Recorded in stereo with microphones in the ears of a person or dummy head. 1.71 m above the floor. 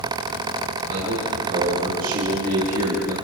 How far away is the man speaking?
About 6 m.